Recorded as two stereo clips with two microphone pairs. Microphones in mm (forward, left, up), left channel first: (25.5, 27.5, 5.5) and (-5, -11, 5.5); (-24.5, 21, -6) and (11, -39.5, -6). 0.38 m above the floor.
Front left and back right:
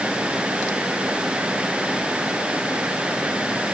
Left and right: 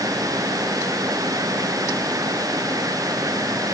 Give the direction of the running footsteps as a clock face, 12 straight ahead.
No running footsteps in this recording.